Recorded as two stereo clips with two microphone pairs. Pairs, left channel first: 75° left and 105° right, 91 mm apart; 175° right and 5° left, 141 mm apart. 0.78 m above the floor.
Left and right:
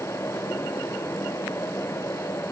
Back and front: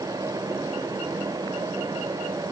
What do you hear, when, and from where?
Only background noise.